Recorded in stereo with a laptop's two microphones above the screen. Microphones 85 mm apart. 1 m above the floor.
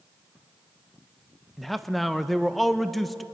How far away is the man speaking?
About 0.7 m.